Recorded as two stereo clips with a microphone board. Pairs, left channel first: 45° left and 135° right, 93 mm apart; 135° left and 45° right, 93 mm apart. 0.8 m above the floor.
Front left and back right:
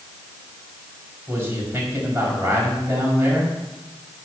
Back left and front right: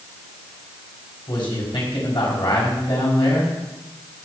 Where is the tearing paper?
I don't hear tearing paper.